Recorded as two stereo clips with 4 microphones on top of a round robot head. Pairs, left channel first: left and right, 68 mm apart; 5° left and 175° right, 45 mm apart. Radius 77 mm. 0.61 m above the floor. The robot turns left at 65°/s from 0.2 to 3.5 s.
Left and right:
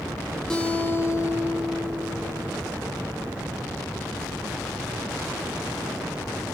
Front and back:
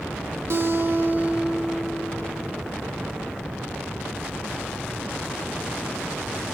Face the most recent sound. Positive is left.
turn(degrees=-25)